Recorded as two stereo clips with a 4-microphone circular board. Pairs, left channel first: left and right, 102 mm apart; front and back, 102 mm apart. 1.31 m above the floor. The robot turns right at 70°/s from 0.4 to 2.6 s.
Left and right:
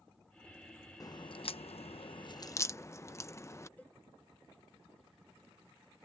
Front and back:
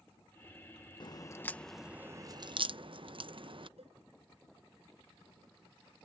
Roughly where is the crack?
Ahead left.